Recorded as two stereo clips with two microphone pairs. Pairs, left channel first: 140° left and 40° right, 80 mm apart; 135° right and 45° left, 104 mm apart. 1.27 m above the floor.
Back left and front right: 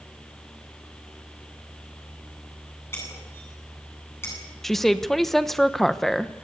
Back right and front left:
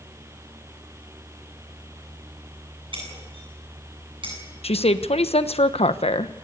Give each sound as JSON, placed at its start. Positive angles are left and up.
{"t": 2.9, "sound": "breaking glass", "azimuth_deg": 80, "distance_m": 9.0}
{"t": 4.6, "sound": "a woman speaking", "azimuth_deg": -135, "distance_m": 1.1}